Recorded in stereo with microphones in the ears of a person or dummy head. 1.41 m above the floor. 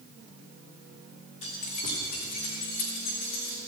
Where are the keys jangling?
40° left (ahead or behind), 2 m; by 3.6 s 60° left (ahead or behind), 4 m.